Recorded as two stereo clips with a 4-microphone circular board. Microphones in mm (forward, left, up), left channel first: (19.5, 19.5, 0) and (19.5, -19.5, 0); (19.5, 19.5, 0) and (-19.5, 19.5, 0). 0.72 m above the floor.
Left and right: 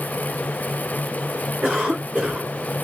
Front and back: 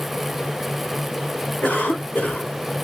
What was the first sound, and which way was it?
A cough, 30° right.